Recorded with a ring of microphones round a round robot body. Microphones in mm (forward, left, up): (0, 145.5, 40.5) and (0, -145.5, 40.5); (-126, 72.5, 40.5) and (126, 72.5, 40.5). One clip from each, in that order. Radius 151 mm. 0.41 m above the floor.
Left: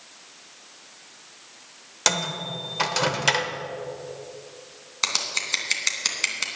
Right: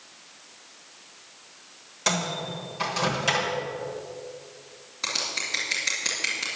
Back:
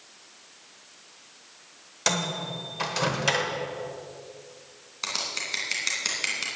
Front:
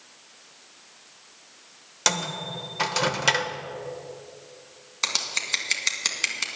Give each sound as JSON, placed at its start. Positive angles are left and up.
{"t": 2.1, "sound": "a microwave", "azimuth_deg": 50, "distance_m": 1.2}
{"t": 5.0, "sound": "scissors", "azimuth_deg": 50, "distance_m": 2.0}